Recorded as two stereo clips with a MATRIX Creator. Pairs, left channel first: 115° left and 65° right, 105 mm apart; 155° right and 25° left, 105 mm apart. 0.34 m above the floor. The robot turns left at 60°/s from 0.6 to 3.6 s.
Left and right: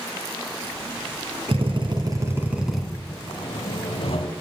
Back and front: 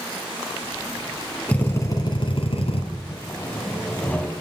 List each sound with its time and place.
1.5 s a drill: 80° right, 2.5 m; by 2.8 s 160° right, 2.5 m
3.1 s sawing: 155° left, 1.6 m; by 4.3 s 125° left, 1.6 m